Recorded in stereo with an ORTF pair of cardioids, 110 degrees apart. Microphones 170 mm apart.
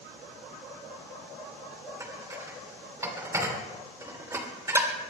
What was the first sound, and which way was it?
Dishes clattering, 15° right.